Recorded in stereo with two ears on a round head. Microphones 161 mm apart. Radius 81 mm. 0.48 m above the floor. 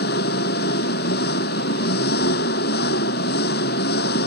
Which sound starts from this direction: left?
An engine running, at 0.0 s.